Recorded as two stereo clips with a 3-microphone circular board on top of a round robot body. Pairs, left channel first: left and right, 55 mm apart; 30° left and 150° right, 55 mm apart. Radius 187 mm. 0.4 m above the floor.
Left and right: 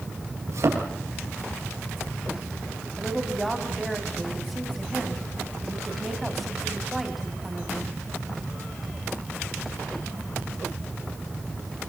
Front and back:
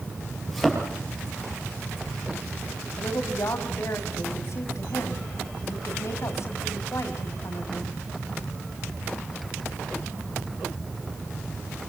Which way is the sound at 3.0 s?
Straight ahead.